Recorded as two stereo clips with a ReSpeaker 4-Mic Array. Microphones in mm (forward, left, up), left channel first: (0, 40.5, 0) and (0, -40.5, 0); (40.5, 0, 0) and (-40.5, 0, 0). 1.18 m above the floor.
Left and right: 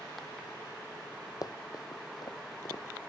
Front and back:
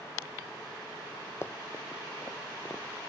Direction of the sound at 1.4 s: 55° left.